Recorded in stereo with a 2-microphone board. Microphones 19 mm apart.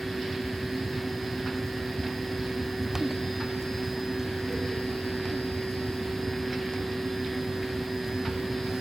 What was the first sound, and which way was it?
Only background noise.